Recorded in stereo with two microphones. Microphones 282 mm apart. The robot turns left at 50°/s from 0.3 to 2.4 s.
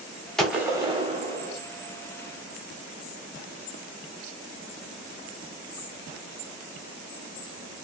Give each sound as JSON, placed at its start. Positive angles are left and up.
{"t": 0.4, "sound": "a gunshot", "azimuth_deg": 0, "distance_m": 0.9}